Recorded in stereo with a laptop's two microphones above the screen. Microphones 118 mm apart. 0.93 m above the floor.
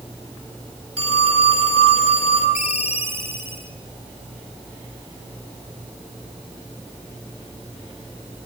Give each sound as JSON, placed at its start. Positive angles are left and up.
{"t": 1.0, "sound": "a phone ringing", "side_deg": -55, "distance_m": 9.0}
{"t": 2.5, "sound": "a ringtone", "side_deg": 75, "distance_m": 2.5}